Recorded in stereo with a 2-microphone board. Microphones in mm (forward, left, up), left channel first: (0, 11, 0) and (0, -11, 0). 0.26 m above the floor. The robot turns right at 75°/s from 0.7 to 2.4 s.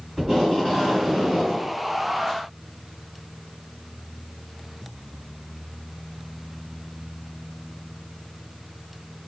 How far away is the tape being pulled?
About 1.8 m.